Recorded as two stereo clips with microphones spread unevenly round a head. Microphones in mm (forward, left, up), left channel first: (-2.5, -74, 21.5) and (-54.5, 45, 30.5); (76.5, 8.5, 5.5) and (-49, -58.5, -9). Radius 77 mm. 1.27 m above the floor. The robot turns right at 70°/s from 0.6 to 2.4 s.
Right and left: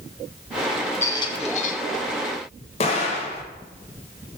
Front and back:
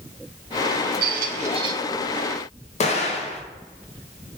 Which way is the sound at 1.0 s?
140° right.